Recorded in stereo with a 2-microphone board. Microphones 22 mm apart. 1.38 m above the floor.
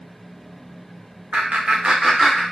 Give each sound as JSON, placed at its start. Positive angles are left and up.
{"t": 1.3, "sound": "laughter", "side_deg": -75, "distance_m": 0.8}